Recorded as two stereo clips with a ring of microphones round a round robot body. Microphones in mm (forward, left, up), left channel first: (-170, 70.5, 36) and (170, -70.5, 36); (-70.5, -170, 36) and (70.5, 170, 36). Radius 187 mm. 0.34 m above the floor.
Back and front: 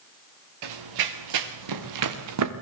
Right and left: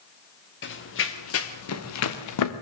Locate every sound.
0.6 s running footsteps: 50° right, 3 m; by 2.5 s 70° right, 2 m